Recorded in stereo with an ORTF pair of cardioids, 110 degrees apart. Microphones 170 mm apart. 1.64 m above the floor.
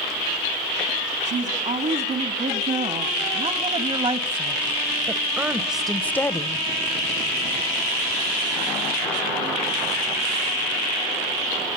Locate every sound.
1.2 s a woman speaking: 50° right, 4 m; by 6.7 s 30° left, 1.2 m